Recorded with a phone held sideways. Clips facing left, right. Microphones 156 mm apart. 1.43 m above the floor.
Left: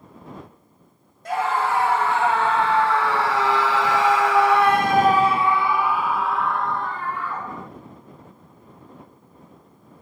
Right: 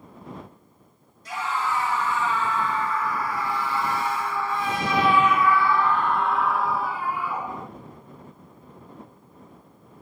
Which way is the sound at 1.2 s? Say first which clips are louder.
Left 6 dB; 55° left (ahead or behind).